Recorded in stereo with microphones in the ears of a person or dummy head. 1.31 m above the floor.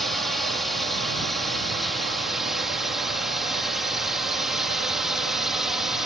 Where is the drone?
Centre (ahead or behind); by 6.1 s 5° right (ahead or behind).